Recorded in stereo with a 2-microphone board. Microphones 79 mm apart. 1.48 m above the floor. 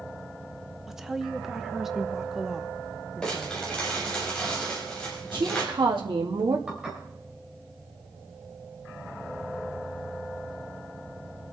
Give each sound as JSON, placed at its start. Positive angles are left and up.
{"t": 0.9, "sound": "a woman speaking", "side_deg": -5, "distance_m": 0.9}
{"t": 3.2, "sound": "crumpling", "side_deg": 10, "distance_m": 5.5}
{"t": 5.3, "sound": "a woman speaking", "side_deg": -80, "distance_m": 2.5}
{"t": 6.7, "sound": "dishes clattering", "side_deg": -10, "distance_m": 4.5}